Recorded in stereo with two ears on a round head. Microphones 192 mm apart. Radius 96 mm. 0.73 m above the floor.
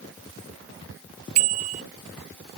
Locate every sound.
1.4 s a bicycle bell: 85° right